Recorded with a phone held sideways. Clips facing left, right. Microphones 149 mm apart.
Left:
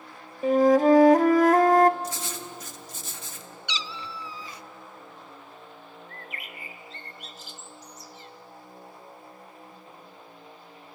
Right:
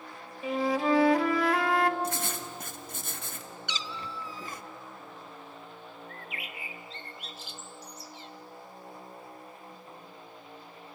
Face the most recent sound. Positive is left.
turn(degrees=40)  # may be behind; listen again after turning